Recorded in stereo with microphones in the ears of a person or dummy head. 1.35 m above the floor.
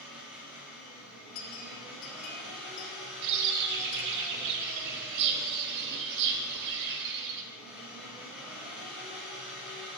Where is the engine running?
5° right (ahead or behind), 3.5 m.